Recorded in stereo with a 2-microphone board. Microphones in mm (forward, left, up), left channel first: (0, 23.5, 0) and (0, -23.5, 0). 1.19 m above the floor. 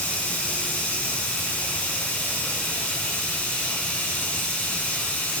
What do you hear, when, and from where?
0.0 s running water: 35° left (ahead or behind), 1.6 m